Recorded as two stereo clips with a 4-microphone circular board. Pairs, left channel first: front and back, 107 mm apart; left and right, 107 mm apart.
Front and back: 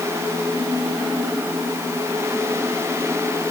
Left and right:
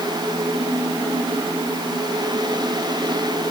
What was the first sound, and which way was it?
Only background noise.